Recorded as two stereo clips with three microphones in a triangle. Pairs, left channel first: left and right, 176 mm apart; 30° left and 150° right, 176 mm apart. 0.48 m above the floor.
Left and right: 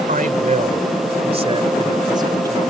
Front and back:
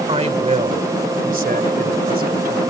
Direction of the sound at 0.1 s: 105° right.